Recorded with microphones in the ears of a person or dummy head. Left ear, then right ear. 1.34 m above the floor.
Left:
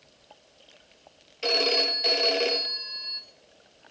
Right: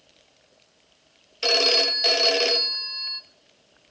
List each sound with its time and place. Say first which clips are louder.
1.4 s a phone ringing: right 4 dB; 25° right (ahead or behind), 1.2 m